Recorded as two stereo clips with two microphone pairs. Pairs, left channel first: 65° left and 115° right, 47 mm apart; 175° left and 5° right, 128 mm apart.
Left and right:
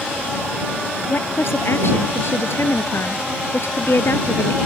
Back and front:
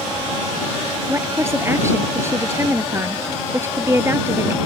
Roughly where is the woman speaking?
Ahead left.